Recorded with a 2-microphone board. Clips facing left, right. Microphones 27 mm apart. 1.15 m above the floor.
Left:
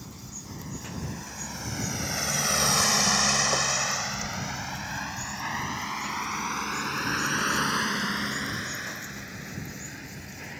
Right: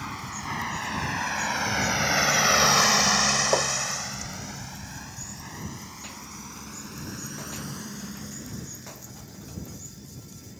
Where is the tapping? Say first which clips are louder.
Right 3 dB; 35° right (ahead or behind).